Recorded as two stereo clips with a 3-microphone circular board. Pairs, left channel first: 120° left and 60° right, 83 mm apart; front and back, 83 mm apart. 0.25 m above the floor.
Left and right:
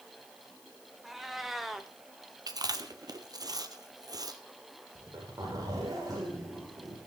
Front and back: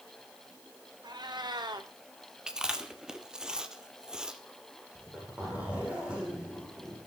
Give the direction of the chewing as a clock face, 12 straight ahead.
3 o'clock.